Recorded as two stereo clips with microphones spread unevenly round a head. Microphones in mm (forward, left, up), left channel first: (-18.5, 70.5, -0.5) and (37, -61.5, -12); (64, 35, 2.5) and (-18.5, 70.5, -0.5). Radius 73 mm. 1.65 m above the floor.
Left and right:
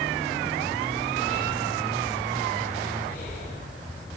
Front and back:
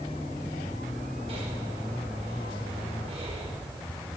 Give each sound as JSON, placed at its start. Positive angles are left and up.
{"t": 1.3, "sound": "breathing", "azimuth_deg": 150, "distance_m": 5.0}